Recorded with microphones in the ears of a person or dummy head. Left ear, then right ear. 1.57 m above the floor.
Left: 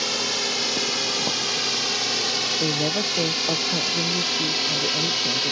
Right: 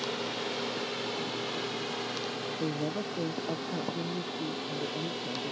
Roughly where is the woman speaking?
Left.